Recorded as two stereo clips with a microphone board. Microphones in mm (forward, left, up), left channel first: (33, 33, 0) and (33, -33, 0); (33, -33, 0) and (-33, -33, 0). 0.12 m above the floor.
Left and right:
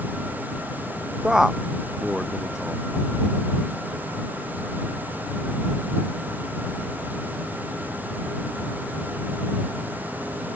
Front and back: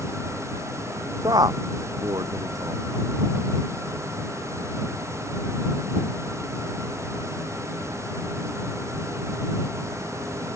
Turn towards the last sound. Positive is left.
turn(degrees=-170)